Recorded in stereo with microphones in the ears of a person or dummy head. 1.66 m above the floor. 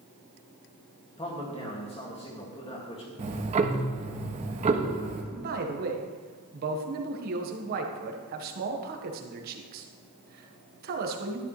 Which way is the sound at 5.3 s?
50° right (ahead or behind).